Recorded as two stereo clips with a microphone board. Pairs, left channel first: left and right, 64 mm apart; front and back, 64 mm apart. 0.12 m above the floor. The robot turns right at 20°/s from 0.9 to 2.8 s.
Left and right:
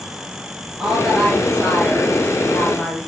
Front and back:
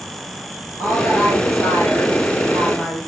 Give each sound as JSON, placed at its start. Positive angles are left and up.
{"t": 0.8, "sound": "a woman speaking", "azimuth_deg": -5, "distance_m": 2.5}